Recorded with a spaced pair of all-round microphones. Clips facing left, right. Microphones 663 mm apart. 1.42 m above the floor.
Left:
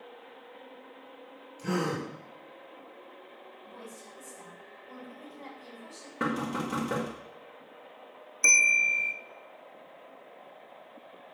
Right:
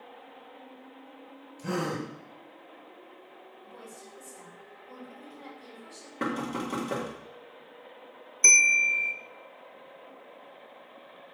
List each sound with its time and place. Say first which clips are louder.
1.6 s a gasp: left 1 dB; 5° right (ahead or behind), 5.5 m
3.6 s a woman speaking: left 1 dB; 35° left (ahead or behind), 6 m
6.2 s knocking: even; 40° left (ahead or behind), 2 m
8.4 s a bell: right 1 dB; 15° left (ahead or behind), 0.6 m